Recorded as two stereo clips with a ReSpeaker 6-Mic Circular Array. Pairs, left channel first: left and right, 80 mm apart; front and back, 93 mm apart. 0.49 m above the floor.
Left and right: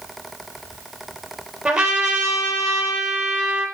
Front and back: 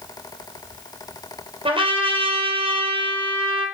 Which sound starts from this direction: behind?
A trumpet, at 1.6 s.